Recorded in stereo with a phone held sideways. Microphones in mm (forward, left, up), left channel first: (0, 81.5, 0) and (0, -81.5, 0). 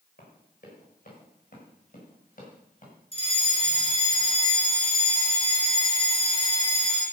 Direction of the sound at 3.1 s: 35° left (ahead or behind).